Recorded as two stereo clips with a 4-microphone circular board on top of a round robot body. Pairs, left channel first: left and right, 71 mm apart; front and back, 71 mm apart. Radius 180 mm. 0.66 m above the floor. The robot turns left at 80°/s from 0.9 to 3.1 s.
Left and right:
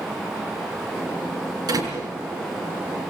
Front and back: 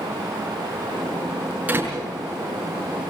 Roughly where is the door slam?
Right.